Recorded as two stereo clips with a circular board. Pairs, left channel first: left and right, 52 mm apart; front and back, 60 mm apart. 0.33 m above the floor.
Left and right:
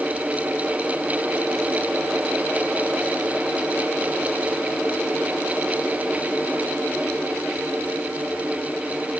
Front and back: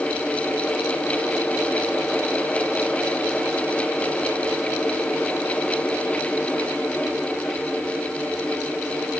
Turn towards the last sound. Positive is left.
No sound to turn to.